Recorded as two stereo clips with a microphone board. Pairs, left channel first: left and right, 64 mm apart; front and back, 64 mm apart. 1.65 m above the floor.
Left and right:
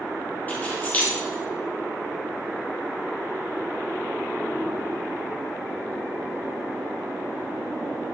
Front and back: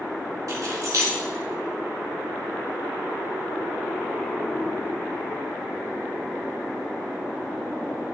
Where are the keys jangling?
155° left, 2.5 m.